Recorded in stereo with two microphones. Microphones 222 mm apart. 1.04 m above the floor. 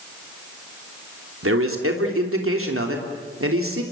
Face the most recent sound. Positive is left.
turn(degrees=-75)  # may be behind; listen again after turning